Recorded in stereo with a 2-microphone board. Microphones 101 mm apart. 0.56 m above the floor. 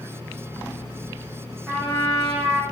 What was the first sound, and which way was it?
A trumpet, 10° right (ahead or behind).